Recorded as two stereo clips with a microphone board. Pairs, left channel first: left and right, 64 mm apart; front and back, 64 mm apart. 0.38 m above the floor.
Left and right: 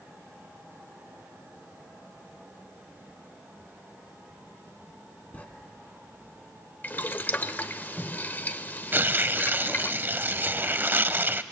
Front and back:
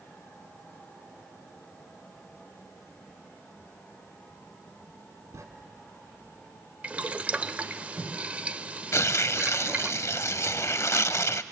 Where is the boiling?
125° left, 0.7 m.